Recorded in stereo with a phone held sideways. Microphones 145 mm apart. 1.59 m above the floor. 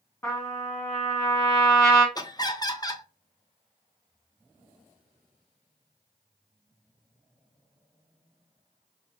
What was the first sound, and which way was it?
A trumpet, 20° left (ahead or behind).